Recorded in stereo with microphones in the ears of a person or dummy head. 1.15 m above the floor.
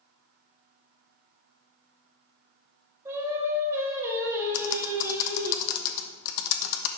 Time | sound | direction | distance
3.0 | singing | 15° right (ahead or behind) | 2 m
4.5 | typing on a keyboard | 60° left (ahead or behind) | 0.8 m